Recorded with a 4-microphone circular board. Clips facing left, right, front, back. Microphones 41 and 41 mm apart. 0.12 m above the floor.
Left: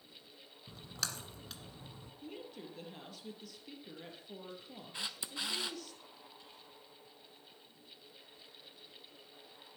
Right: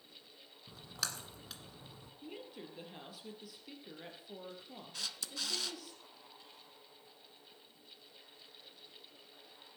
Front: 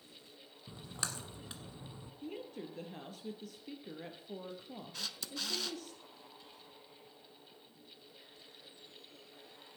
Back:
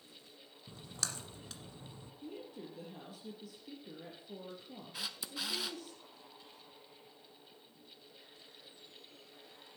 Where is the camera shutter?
120° left, 0.8 m.